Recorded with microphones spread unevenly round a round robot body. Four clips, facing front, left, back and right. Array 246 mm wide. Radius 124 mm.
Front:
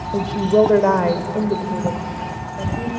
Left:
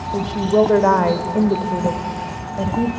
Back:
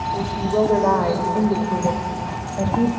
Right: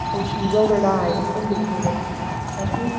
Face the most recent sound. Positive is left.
turn(degrees=135)